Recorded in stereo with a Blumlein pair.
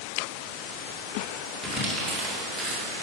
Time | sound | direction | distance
1.6 | crumpling | 5° right | 2 m